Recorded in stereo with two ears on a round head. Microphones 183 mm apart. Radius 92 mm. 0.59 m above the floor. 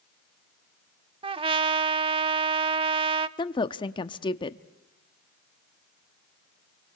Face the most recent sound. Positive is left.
turn(degrees=20)  # may be behind; listen again after turning